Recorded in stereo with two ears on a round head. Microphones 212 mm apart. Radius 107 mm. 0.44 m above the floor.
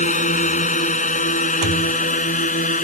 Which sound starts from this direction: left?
A drone, at 0.0 s.